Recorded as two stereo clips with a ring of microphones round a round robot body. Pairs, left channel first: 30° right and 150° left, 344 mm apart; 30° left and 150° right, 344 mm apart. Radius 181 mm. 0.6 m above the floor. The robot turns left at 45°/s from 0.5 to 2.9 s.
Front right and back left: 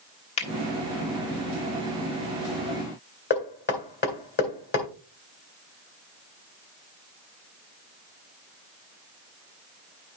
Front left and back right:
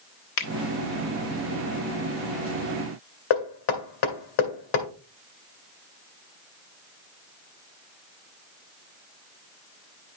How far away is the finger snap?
About 1.3 m.